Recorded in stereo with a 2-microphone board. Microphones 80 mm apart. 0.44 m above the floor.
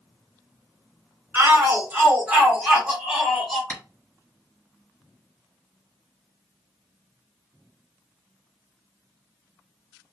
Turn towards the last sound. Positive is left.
turn(degrees=35)  # may be behind; listen again after turning